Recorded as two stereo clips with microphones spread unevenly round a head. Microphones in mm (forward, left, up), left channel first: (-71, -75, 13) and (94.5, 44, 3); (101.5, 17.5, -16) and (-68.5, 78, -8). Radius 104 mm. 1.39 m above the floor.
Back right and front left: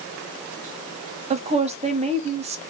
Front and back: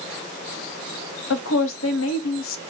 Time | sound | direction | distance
1.3 | a woman speaking | 25° right | 0.7 m